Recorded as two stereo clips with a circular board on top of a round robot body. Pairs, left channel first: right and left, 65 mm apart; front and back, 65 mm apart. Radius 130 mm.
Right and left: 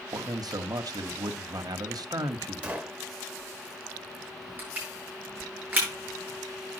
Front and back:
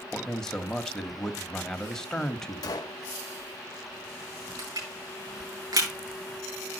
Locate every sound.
0.1 s a man speaking: 80° left, 1.1 m
2.6 s a gunshot: 20° left, 0.7 m
4.6 s crushing: 160° left, 6 m